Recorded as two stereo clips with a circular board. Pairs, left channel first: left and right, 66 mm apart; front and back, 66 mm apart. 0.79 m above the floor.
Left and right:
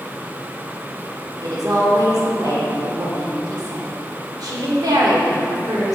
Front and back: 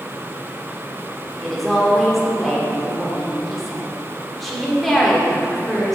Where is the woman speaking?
85° right, 1.7 m.